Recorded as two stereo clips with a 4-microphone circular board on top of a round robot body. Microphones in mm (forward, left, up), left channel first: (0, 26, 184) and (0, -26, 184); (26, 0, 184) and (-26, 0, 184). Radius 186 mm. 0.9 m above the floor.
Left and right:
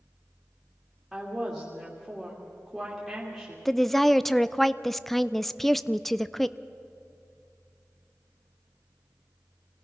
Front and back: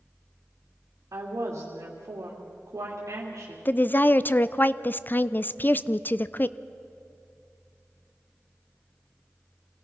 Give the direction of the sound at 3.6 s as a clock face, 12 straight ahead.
12 o'clock.